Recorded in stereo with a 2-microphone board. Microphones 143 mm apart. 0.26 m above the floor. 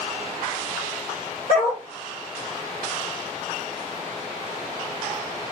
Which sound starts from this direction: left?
A dog barking, at 1.5 s.